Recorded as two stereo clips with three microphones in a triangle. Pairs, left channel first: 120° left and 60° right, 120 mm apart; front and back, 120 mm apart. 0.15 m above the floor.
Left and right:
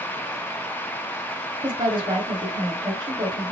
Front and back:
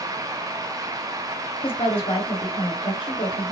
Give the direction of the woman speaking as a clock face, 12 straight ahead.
1 o'clock.